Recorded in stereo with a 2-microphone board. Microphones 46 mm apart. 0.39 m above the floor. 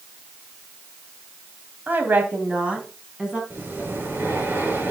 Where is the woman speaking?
45° right (ahead or behind), 2.5 m; by 3.4 s 15° right (ahead or behind), 3.5 m.